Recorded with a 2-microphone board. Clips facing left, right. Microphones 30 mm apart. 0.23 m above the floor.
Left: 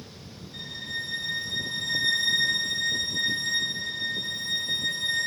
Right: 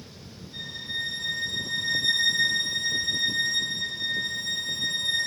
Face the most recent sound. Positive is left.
turn(degrees=-35)  # may be behind; listen again after turning